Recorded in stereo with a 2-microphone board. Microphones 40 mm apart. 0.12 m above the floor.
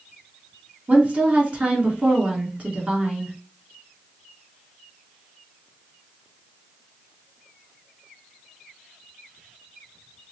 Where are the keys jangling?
No keys jangling in this recording.